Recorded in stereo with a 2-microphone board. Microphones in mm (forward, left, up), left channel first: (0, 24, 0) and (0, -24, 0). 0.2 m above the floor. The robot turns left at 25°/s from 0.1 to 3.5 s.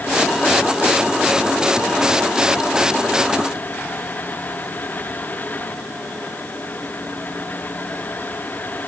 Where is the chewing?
No chewing in this recording.